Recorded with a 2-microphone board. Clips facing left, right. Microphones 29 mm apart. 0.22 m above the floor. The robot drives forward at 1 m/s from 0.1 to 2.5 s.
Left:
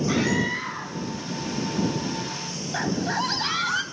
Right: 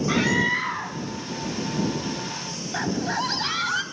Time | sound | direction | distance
0.1 | a scream | 20° right (ahead or behind) | 1.7 m
2.7 | a scream | centre (ahead or behind) | 1.0 m